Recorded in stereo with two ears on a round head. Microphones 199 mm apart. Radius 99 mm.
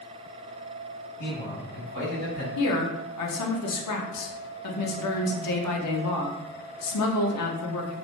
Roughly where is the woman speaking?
Left.